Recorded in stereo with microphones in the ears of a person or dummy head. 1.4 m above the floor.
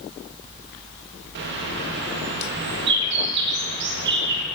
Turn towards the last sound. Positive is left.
turn(degrees=-65)  # may be behind; listen again after turning